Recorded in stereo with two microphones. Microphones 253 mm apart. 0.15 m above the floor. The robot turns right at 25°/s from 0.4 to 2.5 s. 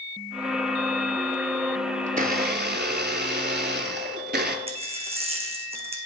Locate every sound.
2.1 s a blender: 30° right (ahead or behind), 0.6 m; by 4.6 s 40° right (ahead or behind), 0.6 m
4.7 s a dropped coin: 25° right (ahead or behind), 0.8 m